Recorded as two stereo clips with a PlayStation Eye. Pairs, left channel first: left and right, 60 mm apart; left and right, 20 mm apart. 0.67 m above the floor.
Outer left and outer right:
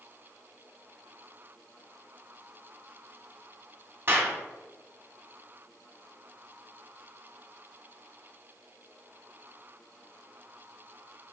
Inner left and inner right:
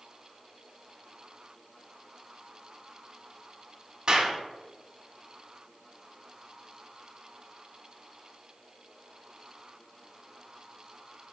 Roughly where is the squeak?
I don't hear a squeak.